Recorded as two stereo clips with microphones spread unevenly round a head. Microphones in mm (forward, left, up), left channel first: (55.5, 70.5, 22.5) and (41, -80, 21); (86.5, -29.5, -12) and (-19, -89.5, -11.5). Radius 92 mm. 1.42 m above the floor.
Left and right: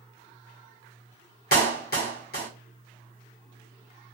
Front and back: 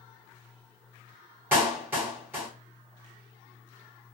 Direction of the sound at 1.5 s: 130° left.